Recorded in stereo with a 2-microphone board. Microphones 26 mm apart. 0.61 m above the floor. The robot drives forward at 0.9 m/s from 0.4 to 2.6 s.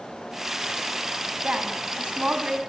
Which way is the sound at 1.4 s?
45° right (ahead or behind).